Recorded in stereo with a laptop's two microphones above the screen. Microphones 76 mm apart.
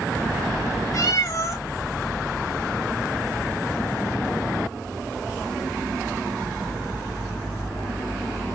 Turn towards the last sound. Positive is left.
turn(degrees=45)  # may be behind; listen again after turning